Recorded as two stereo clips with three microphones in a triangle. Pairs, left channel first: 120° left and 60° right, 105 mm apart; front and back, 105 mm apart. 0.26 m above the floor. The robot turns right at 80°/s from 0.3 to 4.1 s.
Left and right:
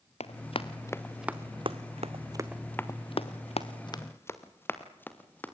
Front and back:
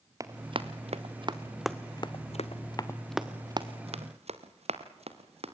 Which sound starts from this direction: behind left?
Running footsteps, at 0.2 s.